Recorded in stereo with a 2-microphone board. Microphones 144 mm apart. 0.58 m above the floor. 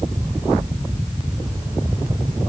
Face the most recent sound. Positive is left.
No sound to turn to.